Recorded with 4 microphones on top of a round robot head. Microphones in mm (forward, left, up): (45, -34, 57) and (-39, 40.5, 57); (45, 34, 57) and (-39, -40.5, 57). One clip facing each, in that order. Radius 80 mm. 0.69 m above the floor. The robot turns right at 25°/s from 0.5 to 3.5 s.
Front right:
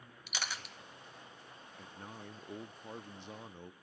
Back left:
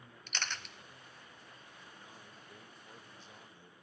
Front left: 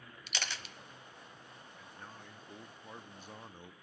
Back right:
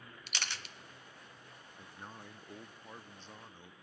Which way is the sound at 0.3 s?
40° left.